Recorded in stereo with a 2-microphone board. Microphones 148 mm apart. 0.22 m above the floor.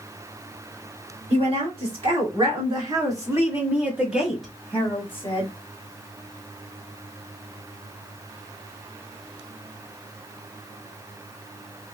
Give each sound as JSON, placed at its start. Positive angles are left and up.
{"t": 1.3, "sound": "a woman speaking", "side_deg": -50, "distance_m": 2.5}